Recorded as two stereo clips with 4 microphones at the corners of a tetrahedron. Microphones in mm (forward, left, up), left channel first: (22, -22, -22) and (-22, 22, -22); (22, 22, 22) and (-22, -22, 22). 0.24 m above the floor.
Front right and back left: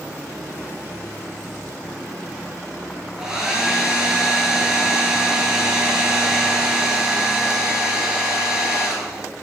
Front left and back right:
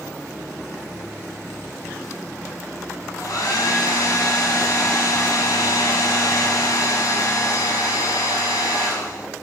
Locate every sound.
3.2 s a hair dryer: 55° left, 0.7 m